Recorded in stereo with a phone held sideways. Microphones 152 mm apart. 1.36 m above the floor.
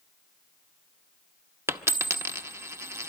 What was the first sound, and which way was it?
A dropped coin, 15° right (ahead or behind).